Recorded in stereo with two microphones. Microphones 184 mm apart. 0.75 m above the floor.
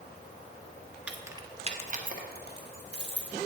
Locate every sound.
1.1 s keys jangling: 5° right (ahead or behind), 0.6 m; by 3.4 s 75° right (ahead or behind), 1.4 m